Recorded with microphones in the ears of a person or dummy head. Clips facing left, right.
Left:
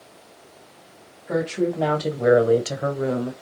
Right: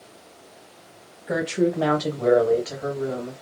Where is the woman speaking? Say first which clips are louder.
Right 1 dB; 20° right (ahead or behind), 1.0 m; by 3.3 s 80° left, 0.8 m.